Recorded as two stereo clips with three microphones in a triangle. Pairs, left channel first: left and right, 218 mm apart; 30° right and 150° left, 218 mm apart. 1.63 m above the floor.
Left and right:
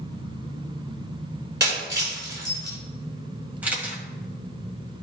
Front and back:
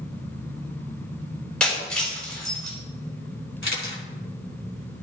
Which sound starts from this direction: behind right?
Breaking glass, at 1.6 s.